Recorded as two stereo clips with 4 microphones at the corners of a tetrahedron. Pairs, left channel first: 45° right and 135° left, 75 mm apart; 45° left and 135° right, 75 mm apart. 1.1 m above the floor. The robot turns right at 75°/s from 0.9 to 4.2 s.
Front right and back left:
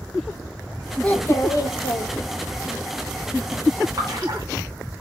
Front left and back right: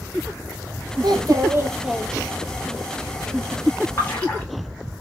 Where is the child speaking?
120° right, 0.8 m; by 2.7 s 5° left, 0.8 m.